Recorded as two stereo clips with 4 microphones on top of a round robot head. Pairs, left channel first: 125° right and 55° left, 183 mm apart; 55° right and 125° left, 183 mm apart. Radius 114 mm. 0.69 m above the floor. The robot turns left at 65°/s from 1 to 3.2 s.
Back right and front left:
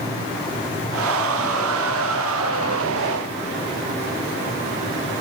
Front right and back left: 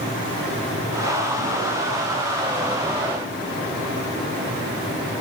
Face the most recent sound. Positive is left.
No sound to turn to.